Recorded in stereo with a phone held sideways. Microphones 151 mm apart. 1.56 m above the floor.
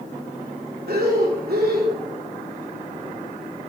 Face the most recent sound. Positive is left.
turn(degrees=-75)  # may be behind; listen again after turning